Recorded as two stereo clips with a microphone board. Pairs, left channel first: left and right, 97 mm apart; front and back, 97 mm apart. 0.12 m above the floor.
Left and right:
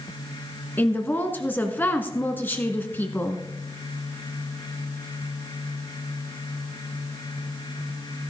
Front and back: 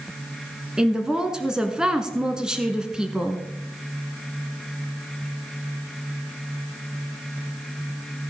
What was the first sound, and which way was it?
A woman speaking, 115° left.